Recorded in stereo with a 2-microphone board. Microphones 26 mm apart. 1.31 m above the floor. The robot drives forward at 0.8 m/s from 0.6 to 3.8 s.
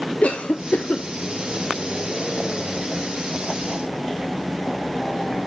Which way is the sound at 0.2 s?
70° left (ahead or behind).